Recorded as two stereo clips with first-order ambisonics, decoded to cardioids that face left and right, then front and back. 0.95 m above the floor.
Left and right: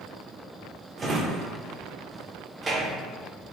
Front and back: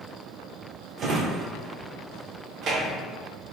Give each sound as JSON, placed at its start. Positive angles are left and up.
{"t": 1.0, "sound": "a drawer", "azimuth_deg": -150, "distance_m": 0.6}